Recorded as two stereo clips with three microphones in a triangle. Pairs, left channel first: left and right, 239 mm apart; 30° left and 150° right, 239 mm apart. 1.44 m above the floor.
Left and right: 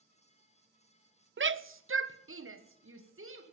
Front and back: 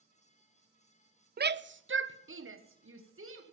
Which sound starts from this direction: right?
A shout, at 1.4 s.